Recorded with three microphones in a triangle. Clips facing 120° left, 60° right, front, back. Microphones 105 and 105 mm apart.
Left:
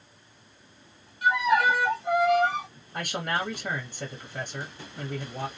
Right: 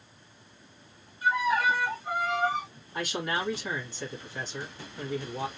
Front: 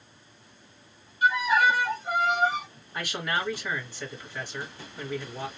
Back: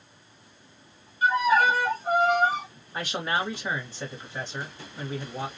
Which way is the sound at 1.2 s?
125° left.